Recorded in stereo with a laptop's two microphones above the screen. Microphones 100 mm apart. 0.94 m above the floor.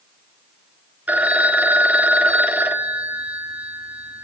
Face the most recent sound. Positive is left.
turn(degrees=-15)  # may be behind; listen again after turning